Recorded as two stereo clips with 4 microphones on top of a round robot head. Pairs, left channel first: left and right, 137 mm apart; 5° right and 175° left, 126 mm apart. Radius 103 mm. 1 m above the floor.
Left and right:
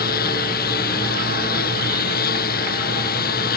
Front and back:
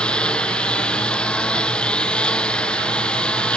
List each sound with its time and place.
0.0 s a lawn mower: 75° left